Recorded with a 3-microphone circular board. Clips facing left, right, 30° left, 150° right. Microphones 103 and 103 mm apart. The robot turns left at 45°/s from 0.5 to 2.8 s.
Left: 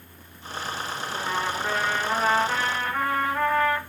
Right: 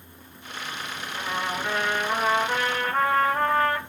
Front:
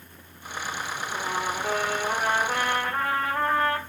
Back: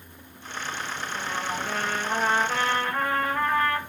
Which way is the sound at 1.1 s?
35° left.